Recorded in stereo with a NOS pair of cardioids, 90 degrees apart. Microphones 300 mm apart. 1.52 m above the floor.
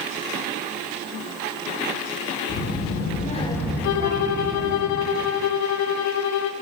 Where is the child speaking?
55° left, 2 m; by 4.8 s 50° right, 2 m.